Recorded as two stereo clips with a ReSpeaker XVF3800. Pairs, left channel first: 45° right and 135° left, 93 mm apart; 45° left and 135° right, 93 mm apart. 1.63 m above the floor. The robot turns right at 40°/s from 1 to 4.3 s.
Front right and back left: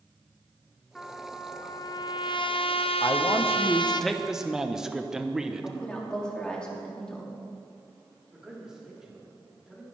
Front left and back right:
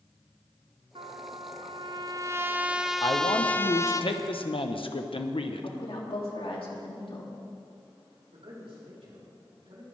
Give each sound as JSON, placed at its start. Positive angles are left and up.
{"t": 0.9, "sound": "a trumpet", "azimuth_deg": -125, "distance_m": 0.6}
{"t": 3.0, "sound": "a man speaking", "azimuth_deg": 0, "distance_m": 1.0}
{"t": 5.6, "sound": "a woman speaking", "azimuth_deg": 35, "distance_m": 2.5}
{"t": 8.3, "sound": "a man speaking", "azimuth_deg": -140, "distance_m": 4.5}